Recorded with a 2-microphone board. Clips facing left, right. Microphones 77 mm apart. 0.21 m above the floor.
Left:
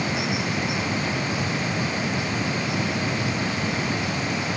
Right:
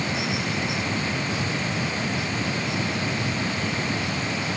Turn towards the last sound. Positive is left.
No sound to turn to.